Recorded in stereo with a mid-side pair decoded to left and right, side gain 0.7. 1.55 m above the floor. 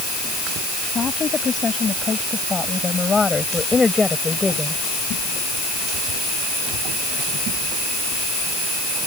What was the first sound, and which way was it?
A woman speaking, 30° left.